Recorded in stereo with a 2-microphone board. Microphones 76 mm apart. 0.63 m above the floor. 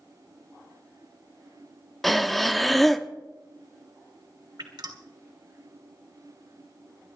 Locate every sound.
2.0 s breathing: centre (ahead or behind), 0.7 m
4.6 s dripping: 75° right (ahead or behind), 3 m